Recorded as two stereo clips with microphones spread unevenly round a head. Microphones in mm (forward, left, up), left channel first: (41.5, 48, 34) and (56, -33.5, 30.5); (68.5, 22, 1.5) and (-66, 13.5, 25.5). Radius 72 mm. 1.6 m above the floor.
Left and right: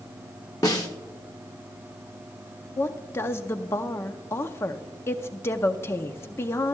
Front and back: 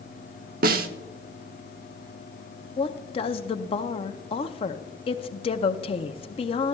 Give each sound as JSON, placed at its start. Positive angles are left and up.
{"t": 0.6, "sound": "a snare drum", "azimuth_deg": 165, "distance_m": 0.6}
{"t": 2.8, "sound": "a woman speaking", "azimuth_deg": 50, "distance_m": 0.6}